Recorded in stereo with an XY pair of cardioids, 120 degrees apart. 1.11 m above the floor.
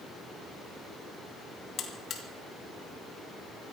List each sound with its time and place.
1.8 s a buzzer: 55° left, 2.5 m